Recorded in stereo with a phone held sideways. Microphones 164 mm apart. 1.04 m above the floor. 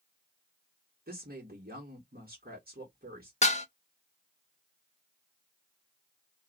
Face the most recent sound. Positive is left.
turn(degrees=40)  # may be behind; listen again after turning